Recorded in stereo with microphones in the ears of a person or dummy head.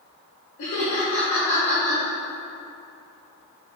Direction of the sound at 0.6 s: 50° left (ahead or behind).